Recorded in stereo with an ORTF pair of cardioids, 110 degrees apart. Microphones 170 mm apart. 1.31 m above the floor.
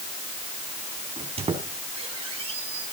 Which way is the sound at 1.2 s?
35° right.